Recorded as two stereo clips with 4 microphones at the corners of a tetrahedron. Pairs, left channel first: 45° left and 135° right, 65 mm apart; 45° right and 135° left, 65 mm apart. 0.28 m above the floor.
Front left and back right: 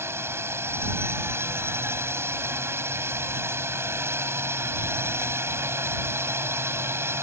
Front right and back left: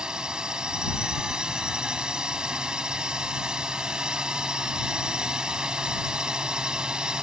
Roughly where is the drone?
Behind right.